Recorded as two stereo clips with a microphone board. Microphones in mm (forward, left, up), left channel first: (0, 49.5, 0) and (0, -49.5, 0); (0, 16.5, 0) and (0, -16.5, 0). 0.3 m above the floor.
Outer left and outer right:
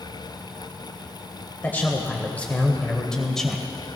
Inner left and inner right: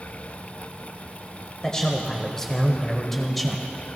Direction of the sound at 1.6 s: 20° left (ahead or behind).